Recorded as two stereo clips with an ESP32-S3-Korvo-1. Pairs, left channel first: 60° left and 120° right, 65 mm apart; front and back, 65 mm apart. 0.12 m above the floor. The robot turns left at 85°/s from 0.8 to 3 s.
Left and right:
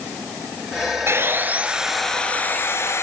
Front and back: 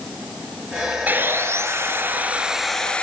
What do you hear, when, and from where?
1.1 s sawing: 135° right, 2 m; by 3.0 s 60° left, 2 m